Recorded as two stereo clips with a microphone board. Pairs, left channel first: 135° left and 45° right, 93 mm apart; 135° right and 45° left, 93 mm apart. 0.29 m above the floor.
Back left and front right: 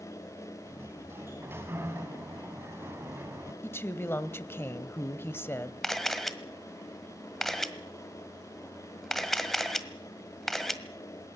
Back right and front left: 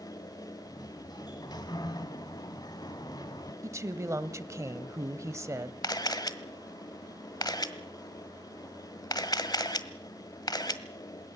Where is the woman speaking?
85° left, 1.1 m.